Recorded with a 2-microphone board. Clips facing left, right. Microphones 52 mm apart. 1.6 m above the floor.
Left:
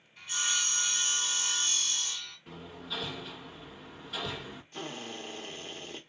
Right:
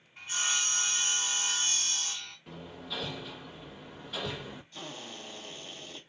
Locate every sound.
0.2 s sawing: 30° right (ahead or behind), 1.8 m
2.5 s hammering: centre (ahead or behind), 1.0 m
4.7 s a drill: 40° left (ahead or behind), 1.0 m